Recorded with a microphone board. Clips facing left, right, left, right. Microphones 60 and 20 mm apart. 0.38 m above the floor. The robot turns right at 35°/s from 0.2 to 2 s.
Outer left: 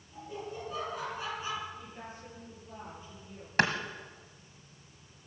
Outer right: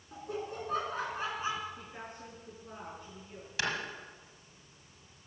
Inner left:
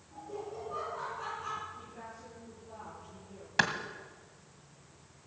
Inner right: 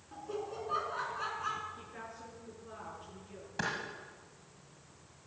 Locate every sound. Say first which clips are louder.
0.1 s laughter: outer right 2 dB, inner right 1 dB; 75° right, 5.5 m; by 1.7 s 25° right, 5.5 m
1.8 s a woman speaking: even, even; 70° right (ahead or behind), 6.5 m; by 3.5 s 65° right (ahead or behind), 6.5 m
3.6 s a clap: outer left 7 dB, inner left 8 dB; 50° left (ahead or behind), 1.8 m